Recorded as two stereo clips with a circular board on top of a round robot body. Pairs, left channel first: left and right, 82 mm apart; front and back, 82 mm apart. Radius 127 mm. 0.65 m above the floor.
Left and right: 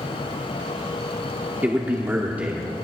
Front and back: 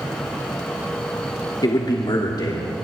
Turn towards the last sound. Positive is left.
turn(degrees=-25)